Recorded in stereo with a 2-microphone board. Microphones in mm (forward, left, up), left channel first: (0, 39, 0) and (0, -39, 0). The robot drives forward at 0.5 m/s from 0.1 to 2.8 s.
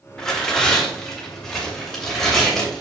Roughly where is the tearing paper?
Centre.